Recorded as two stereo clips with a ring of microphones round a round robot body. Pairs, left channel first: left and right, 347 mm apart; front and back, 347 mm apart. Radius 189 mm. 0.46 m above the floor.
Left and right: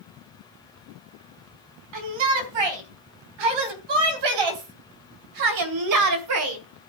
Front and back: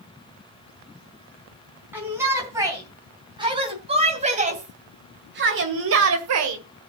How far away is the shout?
About 4.5 m.